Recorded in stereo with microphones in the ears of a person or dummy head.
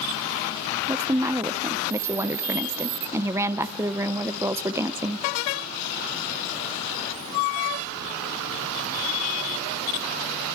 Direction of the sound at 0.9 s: 15° right (ahead or behind).